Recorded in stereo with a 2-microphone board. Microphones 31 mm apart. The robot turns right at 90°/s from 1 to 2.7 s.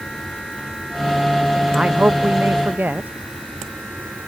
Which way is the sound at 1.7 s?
150° right.